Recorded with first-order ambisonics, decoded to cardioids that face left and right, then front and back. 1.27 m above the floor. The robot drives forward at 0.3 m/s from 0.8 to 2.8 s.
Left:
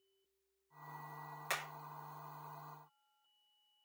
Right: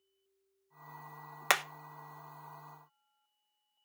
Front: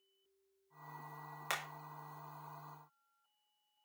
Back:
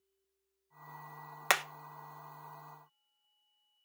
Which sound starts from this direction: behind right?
Hammering, at 1.5 s.